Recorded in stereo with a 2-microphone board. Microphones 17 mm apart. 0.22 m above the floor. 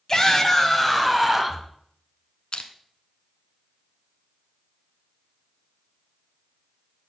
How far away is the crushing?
About 1.1 m.